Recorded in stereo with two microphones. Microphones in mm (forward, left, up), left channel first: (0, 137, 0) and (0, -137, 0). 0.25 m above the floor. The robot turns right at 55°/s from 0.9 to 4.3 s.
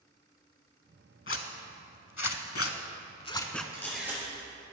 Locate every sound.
1.3 s a zipper: 50° left (ahead or behind), 0.6 m; by 3.6 s centre (ahead or behind), 0.6 m
3.7 s a camera shutter: 15° left (ahead or behind), 2.5 m; by 4.2 s 15° right (ahead or behind), 2.5 m